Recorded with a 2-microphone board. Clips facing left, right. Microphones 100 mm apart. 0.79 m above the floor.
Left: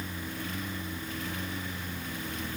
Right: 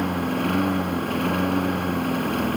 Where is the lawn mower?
65° right (ahead or behind).